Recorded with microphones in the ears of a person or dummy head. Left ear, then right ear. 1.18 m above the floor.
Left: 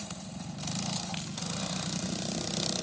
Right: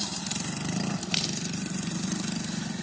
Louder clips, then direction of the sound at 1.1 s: Right 11 dB; 35° right (ahead or behind).